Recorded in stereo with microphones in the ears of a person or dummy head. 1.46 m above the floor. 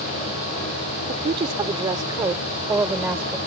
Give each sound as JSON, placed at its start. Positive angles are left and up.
{"t": 1.1, "sound": "a woman speaking", "side_deg": -40}